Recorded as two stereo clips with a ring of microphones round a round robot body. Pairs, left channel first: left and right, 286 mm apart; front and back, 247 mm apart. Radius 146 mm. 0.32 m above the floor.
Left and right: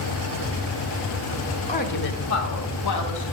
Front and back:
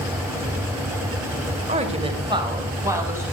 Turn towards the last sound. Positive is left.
turn(degrees=100)